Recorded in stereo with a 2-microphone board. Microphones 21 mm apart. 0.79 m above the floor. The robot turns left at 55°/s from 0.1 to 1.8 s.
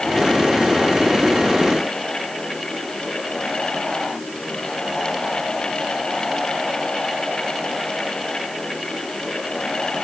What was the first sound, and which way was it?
Only background noise.